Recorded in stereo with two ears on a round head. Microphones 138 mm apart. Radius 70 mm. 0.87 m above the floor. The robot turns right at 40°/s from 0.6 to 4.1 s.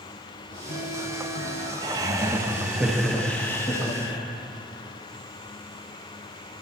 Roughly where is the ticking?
Ahead left.